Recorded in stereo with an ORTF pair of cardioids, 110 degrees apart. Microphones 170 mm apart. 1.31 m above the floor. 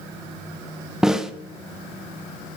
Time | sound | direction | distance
1.0 | a snare drum | 5° right | 0.9 m